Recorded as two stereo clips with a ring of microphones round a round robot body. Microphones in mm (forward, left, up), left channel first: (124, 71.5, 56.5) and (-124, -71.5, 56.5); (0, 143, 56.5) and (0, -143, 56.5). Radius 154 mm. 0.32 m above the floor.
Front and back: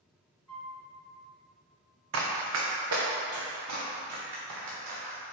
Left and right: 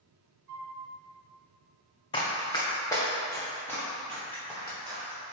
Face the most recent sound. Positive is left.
turn(degrees=175)